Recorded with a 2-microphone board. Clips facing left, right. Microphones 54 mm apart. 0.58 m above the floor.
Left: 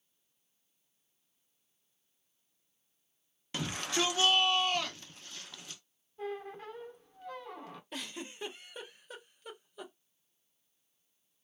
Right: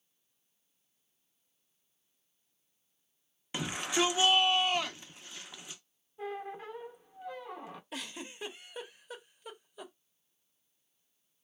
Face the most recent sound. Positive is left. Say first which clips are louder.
# left 1 dB
turn(degrees=-5)  # may be behind; listen again after turning